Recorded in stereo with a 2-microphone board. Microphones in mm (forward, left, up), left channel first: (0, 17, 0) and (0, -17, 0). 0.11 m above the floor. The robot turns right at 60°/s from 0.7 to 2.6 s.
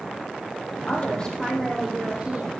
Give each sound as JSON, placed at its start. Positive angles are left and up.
{"t": 0.9, "sound": "a woman speaking", "azimuth_deg": 135, "distance_m": 4.0}